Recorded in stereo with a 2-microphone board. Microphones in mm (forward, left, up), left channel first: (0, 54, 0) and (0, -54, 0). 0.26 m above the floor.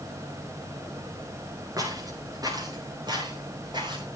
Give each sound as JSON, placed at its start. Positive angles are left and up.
{"t": 1.8, "sound": "footsteps", "side_deg": -30, "distance_m": 9.0}